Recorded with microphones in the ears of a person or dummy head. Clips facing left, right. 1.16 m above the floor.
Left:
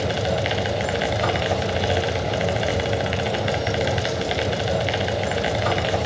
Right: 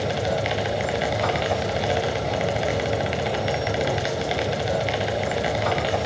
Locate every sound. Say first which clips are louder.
0.0 s a machine running: left 1 dB; centre (ahead or behind), 1.1 m